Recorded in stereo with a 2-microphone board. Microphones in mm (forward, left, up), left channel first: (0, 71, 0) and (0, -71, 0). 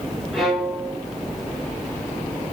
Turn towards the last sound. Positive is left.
turn(degrees=0)  # may be behind; listen again after turning